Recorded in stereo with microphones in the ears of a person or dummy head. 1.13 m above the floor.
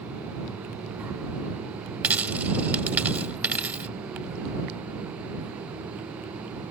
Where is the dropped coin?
10° right (ahead or behind).